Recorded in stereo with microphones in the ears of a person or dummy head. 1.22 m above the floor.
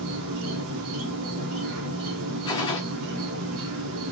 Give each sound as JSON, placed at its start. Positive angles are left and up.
{"t": 0.0, "sound": "an insect", "side_deg": -75, "distance_m": 0.7}
{"t": 2.5, "sound": "a gunshot", "side_deg": 20, "distance_m": 0.6}